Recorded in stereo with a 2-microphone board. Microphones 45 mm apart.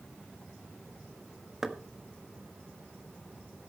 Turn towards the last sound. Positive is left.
turn(degrees=-10)  # may be behind; listen again after turning